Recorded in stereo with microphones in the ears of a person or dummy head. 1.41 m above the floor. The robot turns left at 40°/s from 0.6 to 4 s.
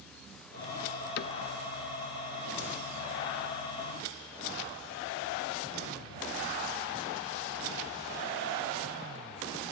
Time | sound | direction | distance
1.2 | a cupboard door | 50° left (ahead or behind) | ?